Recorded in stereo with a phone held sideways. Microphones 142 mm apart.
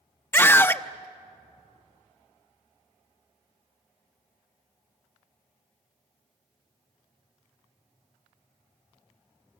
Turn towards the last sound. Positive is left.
turn(degrees=15)  # may be behind; listen again after turning